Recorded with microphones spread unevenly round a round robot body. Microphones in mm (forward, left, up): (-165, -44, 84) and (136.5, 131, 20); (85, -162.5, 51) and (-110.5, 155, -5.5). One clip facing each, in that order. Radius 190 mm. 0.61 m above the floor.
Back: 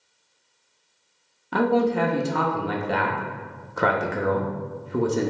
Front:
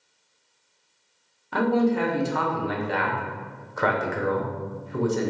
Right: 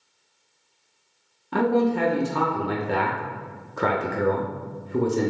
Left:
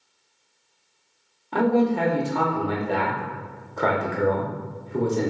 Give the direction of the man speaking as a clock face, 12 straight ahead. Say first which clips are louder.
Back 1 dB, left 1 dB; 4 o'clock.